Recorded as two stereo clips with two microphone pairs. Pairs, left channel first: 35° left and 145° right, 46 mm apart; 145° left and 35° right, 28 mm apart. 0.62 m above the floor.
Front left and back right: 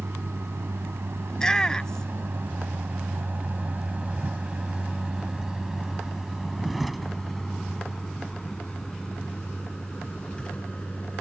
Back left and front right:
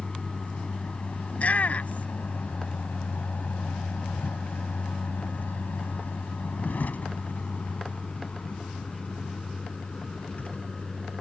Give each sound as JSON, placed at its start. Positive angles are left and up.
{"t": 0.0, "sound": "a vehicle", "azimuth_deg": -160}
{"t": 1.3, "sound": "a shout", "azimuth_deg": 110}